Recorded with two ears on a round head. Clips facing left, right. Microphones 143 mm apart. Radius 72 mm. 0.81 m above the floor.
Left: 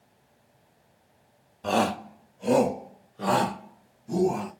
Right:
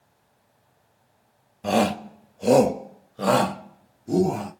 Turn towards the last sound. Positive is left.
turn(degrees=-65)  # may be behind; listen again after turning